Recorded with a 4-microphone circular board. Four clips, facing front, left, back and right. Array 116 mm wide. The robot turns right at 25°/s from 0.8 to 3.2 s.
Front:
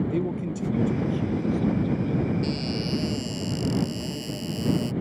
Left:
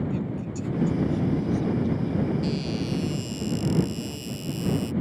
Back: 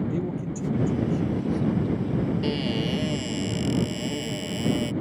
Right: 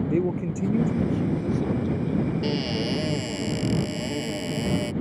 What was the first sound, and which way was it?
A man speaking, 80° right.